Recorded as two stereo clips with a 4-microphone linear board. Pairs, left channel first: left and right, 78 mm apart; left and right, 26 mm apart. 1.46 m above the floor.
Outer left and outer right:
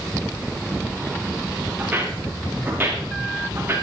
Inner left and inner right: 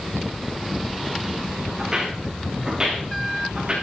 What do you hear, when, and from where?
1.8 s footsteps: 20° right (ahead or behind), 7 m; by 3.7 s 30° right (ahead or behind), 7.5 m